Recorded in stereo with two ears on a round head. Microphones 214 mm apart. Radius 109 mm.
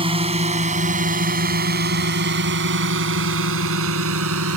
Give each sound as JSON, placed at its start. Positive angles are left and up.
{"t": 0.0, "sound": "a drone", "side_deg": -25}